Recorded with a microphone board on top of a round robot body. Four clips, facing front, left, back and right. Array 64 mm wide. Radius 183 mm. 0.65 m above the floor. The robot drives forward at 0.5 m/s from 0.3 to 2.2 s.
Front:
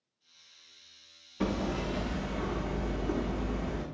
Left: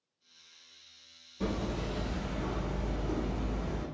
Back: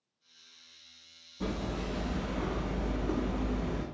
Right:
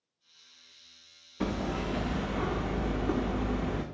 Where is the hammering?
45° right, 0.6 m; by 3.8 s 90° right, 0.5 m.